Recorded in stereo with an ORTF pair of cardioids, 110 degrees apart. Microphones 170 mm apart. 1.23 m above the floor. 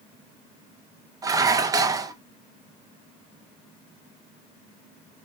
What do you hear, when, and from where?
1.2 s dishes clattering: 20° right, 0.7 m